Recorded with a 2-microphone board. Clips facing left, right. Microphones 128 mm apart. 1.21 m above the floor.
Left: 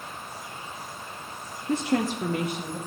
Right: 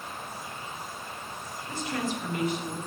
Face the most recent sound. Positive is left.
turn(degrees=75)  # may be behind; listen again after turning